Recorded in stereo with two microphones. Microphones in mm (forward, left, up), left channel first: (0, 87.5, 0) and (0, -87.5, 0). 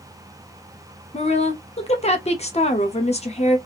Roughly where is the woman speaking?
Left.